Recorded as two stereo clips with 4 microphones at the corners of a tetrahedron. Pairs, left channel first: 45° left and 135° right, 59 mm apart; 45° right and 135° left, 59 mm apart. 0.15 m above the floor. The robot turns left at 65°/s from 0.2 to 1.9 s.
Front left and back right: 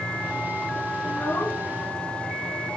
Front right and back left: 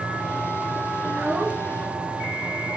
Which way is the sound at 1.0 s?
100° left.